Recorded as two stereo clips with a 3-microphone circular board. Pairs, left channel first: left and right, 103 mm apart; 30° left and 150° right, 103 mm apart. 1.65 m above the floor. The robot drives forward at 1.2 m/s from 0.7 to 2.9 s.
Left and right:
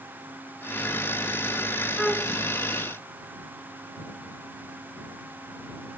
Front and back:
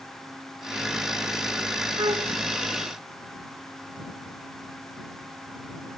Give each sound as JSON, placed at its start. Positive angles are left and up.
{"t": 2.0, "sound": "a flute", "azimuth_deg": 180}